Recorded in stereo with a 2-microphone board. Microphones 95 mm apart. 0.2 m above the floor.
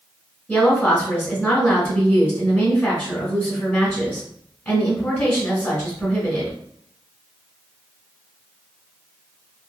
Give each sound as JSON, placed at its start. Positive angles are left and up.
{"t": 0.5, "sound": "a woman speaking", "side_deg": 20, "distance_m": 1.3}